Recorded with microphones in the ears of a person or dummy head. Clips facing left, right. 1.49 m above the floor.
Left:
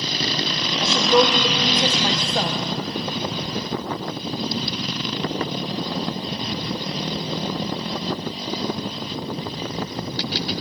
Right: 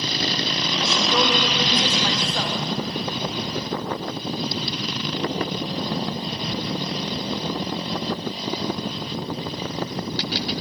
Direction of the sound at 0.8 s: 25° left (ahead or behind).